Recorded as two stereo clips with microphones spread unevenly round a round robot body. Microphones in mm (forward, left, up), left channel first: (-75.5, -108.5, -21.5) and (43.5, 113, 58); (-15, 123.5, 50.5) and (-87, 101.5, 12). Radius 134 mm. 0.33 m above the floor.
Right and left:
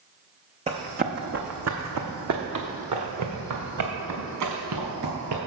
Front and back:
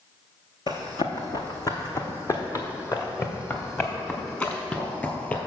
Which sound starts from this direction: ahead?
Running footsteps, at 0.7 s.